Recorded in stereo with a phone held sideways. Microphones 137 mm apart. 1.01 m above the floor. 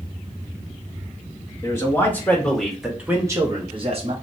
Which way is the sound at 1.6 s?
20° left (ahead or behind).